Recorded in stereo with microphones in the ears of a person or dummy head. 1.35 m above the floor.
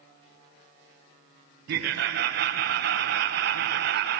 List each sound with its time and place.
1.7 s laughter: 60° right (ahead or behind), 1.3 m